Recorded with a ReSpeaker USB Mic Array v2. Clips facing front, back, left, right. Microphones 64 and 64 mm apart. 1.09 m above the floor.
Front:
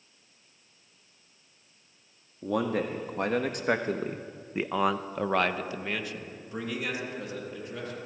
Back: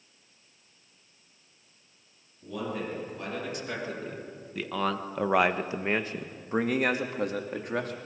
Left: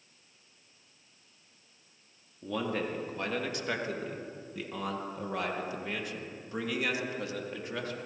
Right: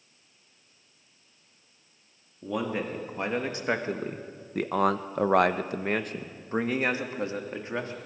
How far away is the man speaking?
About 2 m.